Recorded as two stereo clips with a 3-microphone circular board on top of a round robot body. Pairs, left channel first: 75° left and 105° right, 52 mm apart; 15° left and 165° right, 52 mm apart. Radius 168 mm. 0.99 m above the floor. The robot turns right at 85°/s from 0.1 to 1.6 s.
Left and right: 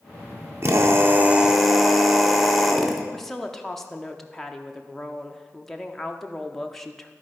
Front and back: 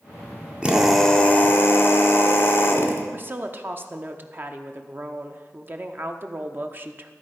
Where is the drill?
100° right, 1.1 m; by 3.0 s 15° right, 1.1 m.